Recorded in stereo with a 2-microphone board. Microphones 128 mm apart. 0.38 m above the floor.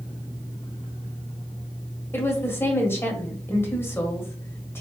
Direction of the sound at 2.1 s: 20° left (ahead or behind).